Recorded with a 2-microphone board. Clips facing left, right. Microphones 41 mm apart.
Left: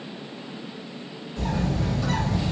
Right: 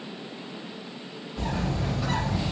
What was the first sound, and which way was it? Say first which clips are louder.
A bird: left 3 dB; 20° right (ahead or behind).